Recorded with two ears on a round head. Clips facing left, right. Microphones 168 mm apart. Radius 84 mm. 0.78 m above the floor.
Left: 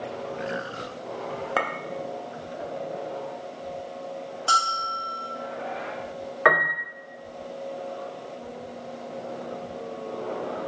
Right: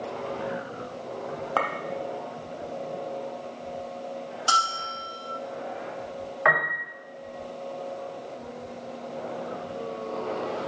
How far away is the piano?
About 2.5 m.